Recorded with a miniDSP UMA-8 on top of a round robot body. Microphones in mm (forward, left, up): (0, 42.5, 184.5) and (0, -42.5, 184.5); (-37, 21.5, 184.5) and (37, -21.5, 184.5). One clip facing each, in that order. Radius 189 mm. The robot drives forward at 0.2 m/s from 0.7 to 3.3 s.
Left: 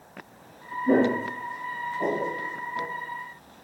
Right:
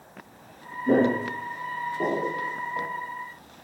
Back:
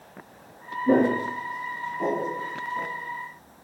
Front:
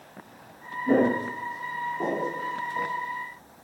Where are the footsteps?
160° right, 0.5 m; by 2.9 s 105° right, 1.4 m.